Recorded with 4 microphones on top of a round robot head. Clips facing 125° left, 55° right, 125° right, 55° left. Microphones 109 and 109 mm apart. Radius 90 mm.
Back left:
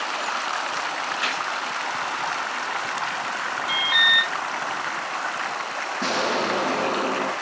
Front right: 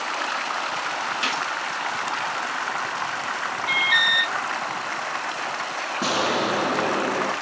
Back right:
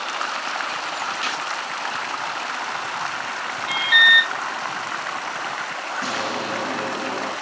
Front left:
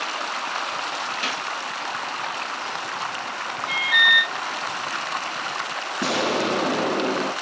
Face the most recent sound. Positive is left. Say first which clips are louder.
# front right 1 dB, front left 5 dB
turn(degrees=30)